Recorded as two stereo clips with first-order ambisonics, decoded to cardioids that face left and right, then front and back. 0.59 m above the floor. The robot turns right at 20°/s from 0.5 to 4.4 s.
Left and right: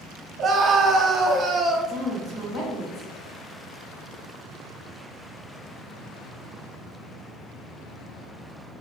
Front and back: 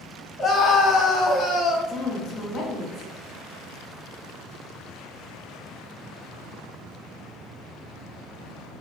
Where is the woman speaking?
20° left, 1.1 m; by 3.1 s 45° left, 1.1 m.